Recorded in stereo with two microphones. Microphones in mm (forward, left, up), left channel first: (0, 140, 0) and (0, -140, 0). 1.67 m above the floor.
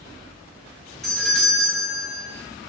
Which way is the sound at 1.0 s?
Centre (ahead or behind).